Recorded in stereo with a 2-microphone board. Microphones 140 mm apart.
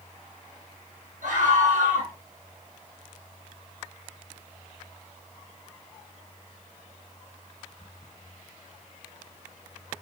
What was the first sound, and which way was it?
A scream, 70° right (ahead or behind).